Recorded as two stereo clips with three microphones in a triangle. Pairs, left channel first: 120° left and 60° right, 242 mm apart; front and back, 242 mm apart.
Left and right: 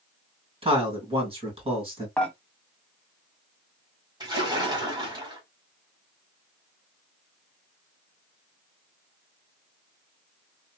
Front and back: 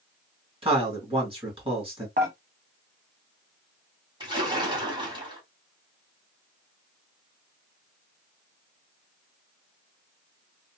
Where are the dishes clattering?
155° right, 1.0 m.